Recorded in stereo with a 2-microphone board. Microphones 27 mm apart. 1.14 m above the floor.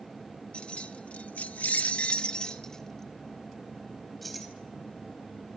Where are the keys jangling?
45° left (ahead or behind), 2 m; by 4.5 s centre (ahead or behind), 4.5 m.